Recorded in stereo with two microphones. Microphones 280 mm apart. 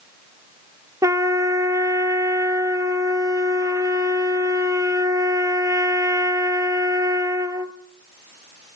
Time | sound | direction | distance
1.0 | a trumpet | 10° right (ahead or behind) | 0.8 m